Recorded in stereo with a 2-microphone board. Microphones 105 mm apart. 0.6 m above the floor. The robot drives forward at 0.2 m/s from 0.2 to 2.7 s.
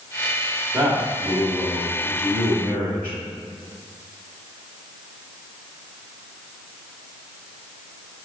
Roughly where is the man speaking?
Centre.